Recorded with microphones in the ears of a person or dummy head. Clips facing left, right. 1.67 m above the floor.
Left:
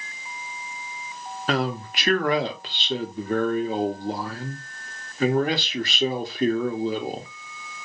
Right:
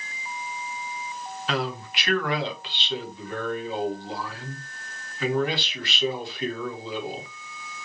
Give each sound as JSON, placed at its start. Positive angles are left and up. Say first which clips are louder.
{"t": 1.5, "sound": "a man speaking", "louder": "left 4 dB", "side_deg": 40, "distance_m": 0.6}